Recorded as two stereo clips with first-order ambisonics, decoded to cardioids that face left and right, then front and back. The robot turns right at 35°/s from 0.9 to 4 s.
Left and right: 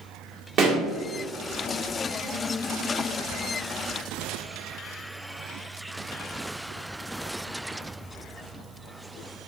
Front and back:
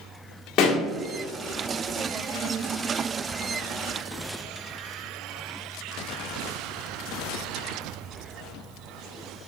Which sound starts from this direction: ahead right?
A pop, at 0.6 s.